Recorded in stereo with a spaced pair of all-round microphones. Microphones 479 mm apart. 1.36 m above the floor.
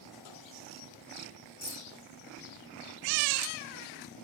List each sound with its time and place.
1.6 s keys jangling: 55° right (ahead or behind), 2 m